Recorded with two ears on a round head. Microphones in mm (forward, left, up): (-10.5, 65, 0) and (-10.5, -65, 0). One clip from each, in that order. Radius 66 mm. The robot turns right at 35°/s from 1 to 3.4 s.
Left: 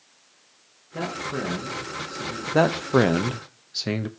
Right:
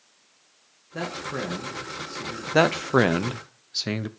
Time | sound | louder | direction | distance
0.9 | a man speaking | left 1 dB | 75° right | 2.5 m
2.5 | a man speaking | even | 45° right | 0.7 m